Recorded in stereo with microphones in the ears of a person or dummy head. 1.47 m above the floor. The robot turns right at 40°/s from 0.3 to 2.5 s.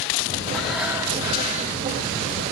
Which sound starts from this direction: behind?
Breathing, at 0.5 s.